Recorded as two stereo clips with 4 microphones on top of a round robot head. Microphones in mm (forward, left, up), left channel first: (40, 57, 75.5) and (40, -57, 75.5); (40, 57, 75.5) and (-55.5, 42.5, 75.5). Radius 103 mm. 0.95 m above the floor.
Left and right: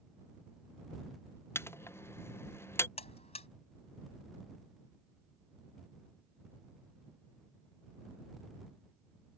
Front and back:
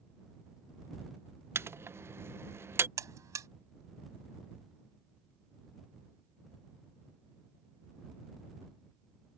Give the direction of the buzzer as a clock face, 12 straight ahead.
7 o'clock.